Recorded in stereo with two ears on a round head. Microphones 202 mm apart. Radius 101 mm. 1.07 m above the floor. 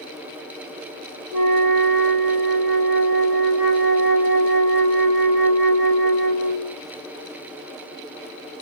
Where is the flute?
55° right (ahead or behind), 3.5 m.